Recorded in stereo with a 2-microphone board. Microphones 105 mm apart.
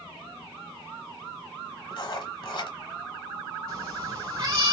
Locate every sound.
1.9 s writing: 55° left (ahead or behind), 0.8 m
3.7 s a cat meowing: 45° right (ahead or behind), 0.9 m